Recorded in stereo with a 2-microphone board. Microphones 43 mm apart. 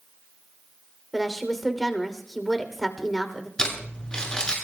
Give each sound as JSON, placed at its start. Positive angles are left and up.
{"t": 1.1, "sound": "a woman speaking", "side_deg": 5, "distance_m": 2.5}
{"t": 3.6, "sound": "crumpling", "side_deg": 20, "distance_m": 8.0}